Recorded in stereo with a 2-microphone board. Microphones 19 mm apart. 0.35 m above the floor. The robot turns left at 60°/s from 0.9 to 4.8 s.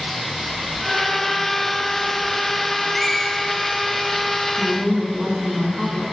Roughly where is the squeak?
Centre.